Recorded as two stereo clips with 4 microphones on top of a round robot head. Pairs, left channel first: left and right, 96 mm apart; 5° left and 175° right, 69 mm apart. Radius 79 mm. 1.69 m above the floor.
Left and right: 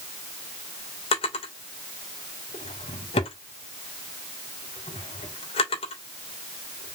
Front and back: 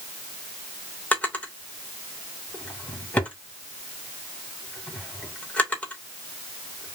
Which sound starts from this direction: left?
A drawer, at 1.1 s.